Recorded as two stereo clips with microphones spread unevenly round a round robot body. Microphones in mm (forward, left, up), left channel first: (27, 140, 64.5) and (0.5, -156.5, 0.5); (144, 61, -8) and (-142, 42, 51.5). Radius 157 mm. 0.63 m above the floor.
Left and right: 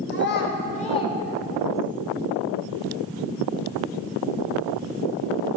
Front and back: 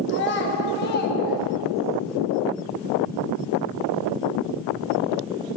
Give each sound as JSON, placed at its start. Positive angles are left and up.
{"t": 0.1, "sound": "a child speaking", "azimuth_deg": 30, "distance_m": 1.1}